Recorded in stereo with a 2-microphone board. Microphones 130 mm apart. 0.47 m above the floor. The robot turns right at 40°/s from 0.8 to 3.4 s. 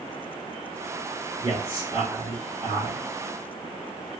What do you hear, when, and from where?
1.4 s a man speaking: 165° left, 2.5 m; by 3.0 s 130° right, 2.5 m